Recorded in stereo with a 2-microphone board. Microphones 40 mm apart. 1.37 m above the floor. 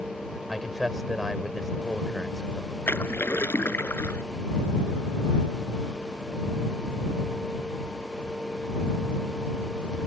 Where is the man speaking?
5° right (ahead or behind).